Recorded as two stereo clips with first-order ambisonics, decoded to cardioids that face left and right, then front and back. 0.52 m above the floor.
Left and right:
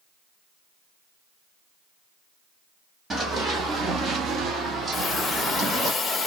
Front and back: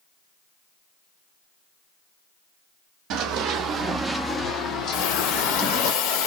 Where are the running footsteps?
160° right, 0.9 m; by 5.9 s 15° right, 1.3 m.